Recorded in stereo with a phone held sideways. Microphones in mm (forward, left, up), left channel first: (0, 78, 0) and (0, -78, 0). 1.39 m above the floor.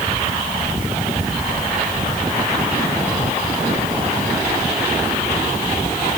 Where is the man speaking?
No man speaking in this recording.